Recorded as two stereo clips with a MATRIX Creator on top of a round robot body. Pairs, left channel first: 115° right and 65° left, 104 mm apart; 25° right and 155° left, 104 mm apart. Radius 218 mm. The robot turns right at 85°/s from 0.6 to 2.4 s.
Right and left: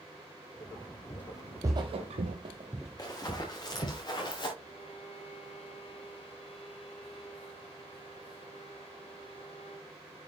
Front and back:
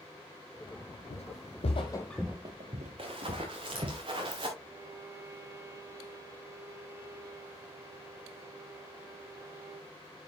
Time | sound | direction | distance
1.1 | footsteps | 50° right | 1.5 m
3.0 | running footsteps | 165° right | 5 m
4.6 | a violin | 140° right | 1.9 m